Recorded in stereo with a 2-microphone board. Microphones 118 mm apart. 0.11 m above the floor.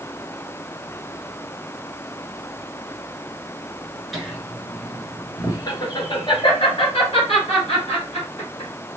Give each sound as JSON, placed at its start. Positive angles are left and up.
{"t": 4.1, "sound": "laughter", "side_deg": 0, "distance_m": 1.2}